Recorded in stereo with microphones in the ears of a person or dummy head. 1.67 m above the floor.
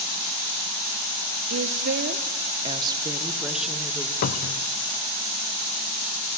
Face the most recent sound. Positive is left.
turn(degrees=50)  # may be behind; listen again after turning